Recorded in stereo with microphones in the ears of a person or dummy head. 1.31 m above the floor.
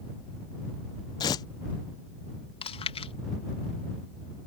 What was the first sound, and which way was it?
Tearing paper, 15° left (ahead or behind).